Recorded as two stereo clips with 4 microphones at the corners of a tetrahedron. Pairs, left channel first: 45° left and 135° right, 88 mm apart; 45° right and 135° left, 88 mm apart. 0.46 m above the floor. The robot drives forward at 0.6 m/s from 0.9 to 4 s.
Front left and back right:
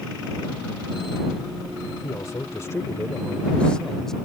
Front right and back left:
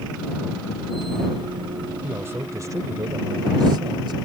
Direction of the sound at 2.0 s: 75° left.